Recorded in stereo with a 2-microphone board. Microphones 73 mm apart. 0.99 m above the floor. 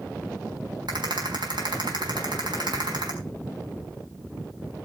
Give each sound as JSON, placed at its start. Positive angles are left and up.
{"t": 0.9, "sound": "a rattle", "side_deg": -85, "distance_m": 5.0}